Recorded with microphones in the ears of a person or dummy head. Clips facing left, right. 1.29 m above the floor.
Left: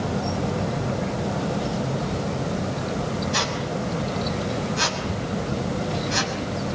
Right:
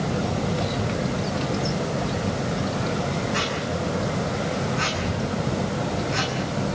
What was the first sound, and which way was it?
A squeak, 75° left (ahead or behind).